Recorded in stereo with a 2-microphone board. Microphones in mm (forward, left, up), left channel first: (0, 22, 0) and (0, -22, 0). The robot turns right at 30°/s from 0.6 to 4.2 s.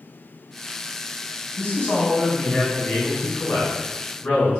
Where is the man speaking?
70° left, 1.7 m; by 4.6 s 150° left, 1.7 m.